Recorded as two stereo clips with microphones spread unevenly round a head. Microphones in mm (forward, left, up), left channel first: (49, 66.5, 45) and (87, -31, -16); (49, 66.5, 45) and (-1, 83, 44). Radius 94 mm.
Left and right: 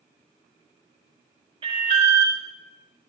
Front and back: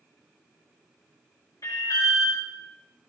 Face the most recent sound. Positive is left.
turn(degrees=-50)